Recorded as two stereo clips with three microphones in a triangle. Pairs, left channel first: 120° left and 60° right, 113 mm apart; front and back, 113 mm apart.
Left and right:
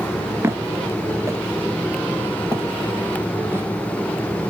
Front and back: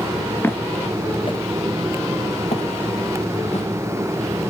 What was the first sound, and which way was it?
Footsteps, 40° right.